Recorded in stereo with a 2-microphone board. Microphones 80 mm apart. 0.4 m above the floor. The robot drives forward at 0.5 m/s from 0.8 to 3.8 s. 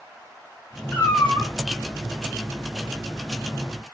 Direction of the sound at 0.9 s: 20° left (ahead or behind).